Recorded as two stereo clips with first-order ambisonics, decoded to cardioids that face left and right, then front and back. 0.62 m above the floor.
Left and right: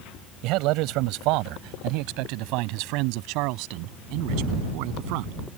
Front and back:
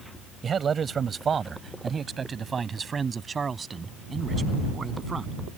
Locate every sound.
0.4 s a man speaking: 115° right; by 5.3 s 105° right